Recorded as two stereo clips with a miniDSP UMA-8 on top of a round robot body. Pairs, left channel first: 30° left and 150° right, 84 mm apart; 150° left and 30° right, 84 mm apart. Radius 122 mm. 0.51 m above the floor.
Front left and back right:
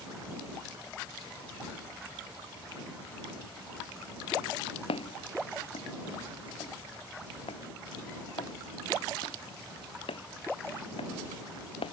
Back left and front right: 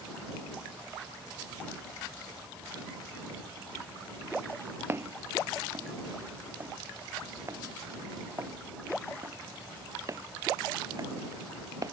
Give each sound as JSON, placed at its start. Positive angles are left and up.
{"t": 4.9, "sound": "footsteps", "azimuth_deg": 35}